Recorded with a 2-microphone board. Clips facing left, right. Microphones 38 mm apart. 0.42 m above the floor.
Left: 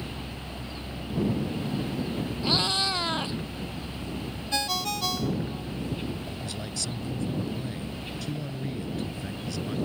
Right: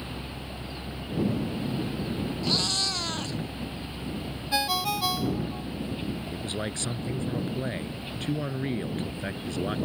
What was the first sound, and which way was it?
A cat meowing, 15° left (ahead or behind).